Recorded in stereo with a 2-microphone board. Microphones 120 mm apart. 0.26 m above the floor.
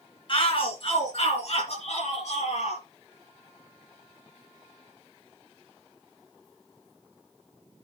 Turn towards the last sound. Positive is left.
turn(degrees=70)  # may be behind; listen again after turning